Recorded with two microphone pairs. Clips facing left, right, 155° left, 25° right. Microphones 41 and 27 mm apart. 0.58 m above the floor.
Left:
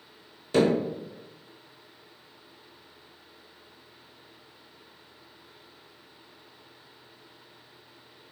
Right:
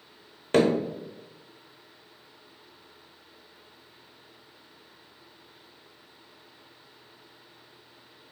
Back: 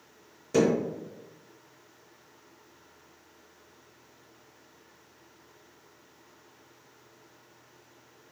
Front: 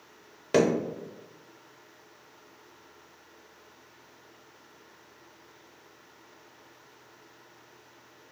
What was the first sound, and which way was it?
Hammering, 55° right.